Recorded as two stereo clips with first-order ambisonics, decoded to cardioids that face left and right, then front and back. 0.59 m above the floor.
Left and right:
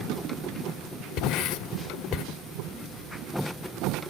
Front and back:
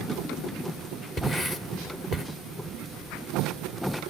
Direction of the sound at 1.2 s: 65° left.